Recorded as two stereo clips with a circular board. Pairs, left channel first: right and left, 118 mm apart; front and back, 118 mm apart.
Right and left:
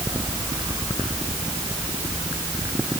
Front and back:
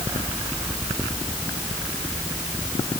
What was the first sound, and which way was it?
Only background noise.